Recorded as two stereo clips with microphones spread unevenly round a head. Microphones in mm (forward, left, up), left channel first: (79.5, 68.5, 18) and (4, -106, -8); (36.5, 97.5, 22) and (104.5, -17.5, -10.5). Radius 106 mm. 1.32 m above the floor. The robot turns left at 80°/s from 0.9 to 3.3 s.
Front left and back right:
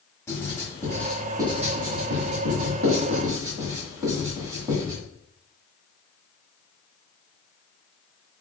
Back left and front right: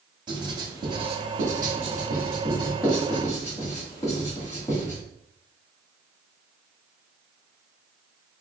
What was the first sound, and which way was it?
Writing, straight ahead.